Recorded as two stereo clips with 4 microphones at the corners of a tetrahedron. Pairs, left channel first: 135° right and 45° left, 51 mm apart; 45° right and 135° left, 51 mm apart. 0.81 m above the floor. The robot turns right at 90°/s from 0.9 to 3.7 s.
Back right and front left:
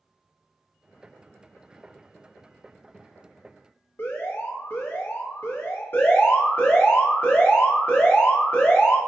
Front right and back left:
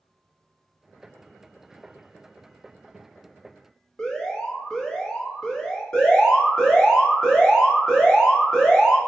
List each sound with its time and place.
4.0 s an alarm: 115° right, 0.9 m
5.9 s an alarm: 115° right, 1.3 m